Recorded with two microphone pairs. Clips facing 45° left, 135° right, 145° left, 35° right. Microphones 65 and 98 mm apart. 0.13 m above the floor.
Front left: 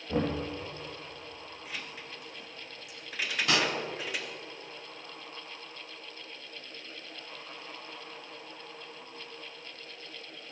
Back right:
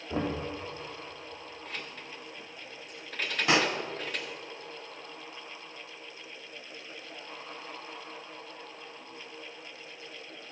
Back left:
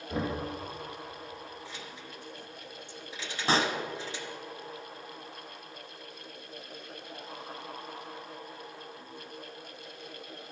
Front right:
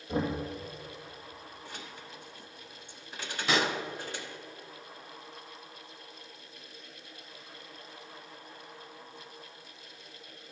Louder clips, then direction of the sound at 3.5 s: Back right 3 dB, back left 2 dB; 170° left.